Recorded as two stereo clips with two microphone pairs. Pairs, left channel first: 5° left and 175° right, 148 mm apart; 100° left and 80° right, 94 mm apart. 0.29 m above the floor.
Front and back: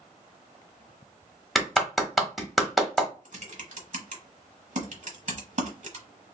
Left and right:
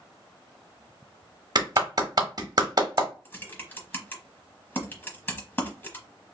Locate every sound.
1.6 s a clap: 80° right, 1.1 m
3.2 s typing on a keyboard: 165° left, 1.0 m